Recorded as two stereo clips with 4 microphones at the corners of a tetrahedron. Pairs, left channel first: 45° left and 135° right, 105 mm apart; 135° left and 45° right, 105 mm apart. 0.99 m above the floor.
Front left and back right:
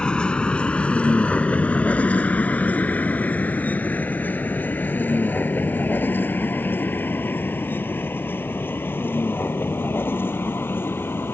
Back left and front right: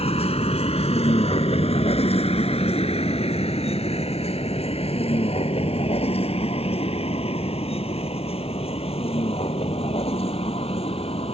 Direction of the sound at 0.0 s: 125° left.